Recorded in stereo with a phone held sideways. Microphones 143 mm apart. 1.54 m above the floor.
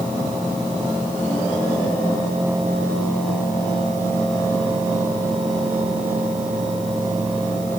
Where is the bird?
No bird in this recording.